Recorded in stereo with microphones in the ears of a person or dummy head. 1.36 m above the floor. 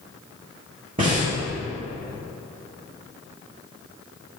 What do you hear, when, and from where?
1.0 s breathing: 30° right (ahead or behind), 1.7 m